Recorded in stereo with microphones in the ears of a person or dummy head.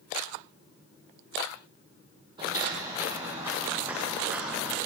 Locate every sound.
2.4 s footsteps: 30° right (ahead or behind), 2 m; by 4.8 s 10° right (ahead or behind), 4 m